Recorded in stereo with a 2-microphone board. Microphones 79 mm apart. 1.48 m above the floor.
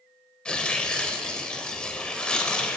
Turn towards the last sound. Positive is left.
turn(degrees=10)  # may be behind; listen again after turning